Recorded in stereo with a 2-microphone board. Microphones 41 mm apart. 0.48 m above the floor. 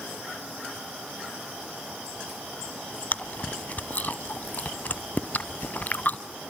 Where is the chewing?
45° left (ahead or behind), 0.8 m.